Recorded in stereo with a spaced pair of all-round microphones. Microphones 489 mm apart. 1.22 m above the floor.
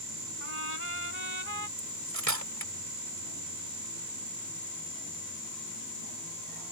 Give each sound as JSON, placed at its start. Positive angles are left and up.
{"t": 0.4, "sound": "a trumpet", "side_deg": -85}
{"t": 1.8, "sound": "cutlery clinking", "side_deg": -35}